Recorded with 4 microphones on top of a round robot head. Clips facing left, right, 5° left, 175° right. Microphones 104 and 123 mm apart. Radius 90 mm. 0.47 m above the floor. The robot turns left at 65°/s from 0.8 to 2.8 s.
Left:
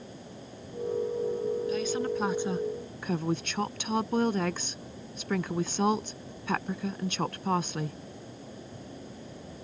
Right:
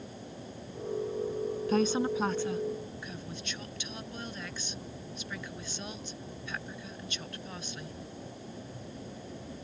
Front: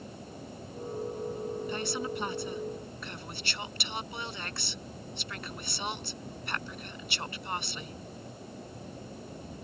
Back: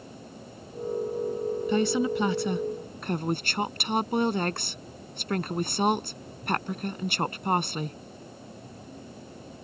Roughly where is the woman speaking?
Behind right.